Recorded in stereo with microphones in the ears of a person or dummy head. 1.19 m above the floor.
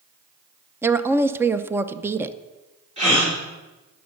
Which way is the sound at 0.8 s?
10° right (ahead or behind).